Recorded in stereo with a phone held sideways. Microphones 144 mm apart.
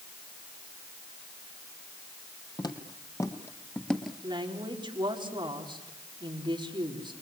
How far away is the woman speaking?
About 4.5 m.